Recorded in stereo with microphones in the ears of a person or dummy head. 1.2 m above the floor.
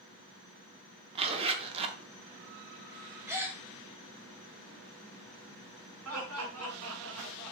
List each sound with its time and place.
1.1 s a zipper: 30° right (ahead or behind), 0.5 m
3.3 s a gasp: 10° right (ahead or behind), 0.7 m
6.0 s laughter: 75° right (ahead or behind), 1.9 m